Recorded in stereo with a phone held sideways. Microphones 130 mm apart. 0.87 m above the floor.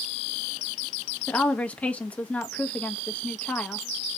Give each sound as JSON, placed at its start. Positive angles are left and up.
{"t": 1.3, "sound": "a woman speaking", "side_deg": 10, "distance_m": 1.0}